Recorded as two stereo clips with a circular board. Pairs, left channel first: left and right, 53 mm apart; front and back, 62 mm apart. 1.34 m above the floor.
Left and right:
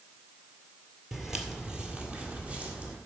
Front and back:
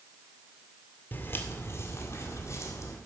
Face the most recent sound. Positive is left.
turn(degrees=-25)